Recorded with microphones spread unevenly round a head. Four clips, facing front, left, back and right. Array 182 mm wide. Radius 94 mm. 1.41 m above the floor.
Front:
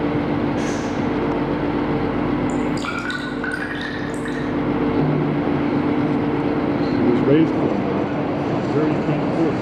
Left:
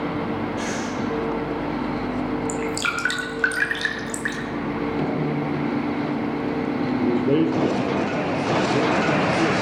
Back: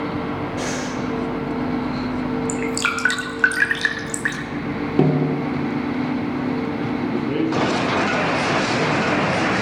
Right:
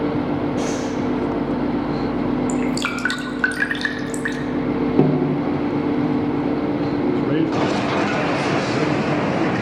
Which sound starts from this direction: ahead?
A man speaking, at 7.0 s.